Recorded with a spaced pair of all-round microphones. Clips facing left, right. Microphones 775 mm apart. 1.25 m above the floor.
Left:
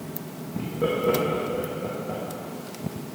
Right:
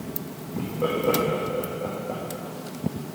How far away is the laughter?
About 2 m.